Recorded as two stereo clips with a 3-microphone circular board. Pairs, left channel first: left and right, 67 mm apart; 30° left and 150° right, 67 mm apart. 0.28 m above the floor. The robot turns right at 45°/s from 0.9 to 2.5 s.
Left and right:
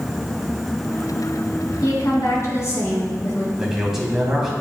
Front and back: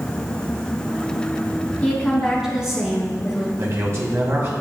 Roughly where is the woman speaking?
Left.